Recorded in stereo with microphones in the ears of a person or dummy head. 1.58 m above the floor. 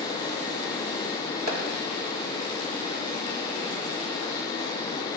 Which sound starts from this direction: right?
A clap, at 1.5 s.